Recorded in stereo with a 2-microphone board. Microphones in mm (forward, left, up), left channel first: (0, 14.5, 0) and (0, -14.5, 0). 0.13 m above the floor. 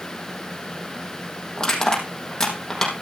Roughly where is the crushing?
Left.